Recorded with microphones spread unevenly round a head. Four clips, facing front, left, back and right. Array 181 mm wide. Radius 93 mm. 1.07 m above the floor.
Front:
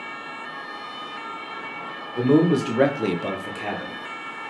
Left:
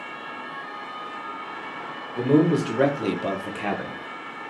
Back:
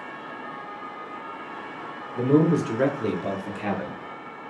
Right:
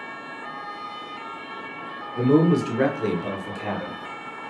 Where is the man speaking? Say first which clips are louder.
Right 1 dB, front 2 dB; 5° right, 1.5 m; by 4.0 s 130° left, 0.8 m.